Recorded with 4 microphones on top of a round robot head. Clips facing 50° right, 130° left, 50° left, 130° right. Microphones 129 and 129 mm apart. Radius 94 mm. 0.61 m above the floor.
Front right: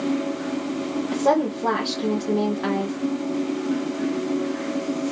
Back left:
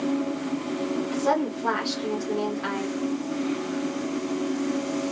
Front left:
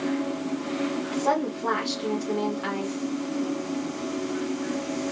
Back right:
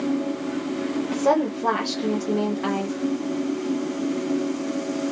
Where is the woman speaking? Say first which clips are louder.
Front right 6 dB, back right 6 dB; 85° right, 1.7 m.